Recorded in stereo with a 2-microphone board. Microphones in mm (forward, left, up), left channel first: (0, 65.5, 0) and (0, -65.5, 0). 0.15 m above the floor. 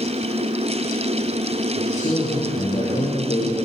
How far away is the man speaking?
About 6.5 m.